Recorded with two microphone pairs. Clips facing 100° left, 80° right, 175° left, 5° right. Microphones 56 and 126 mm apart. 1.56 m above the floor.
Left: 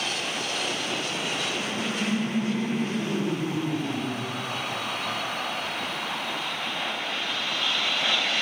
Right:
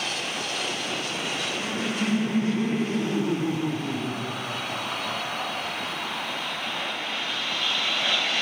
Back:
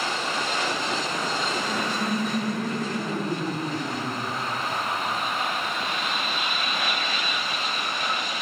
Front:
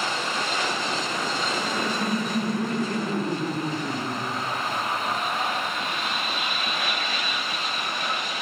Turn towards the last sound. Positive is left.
turn(degrees=-80)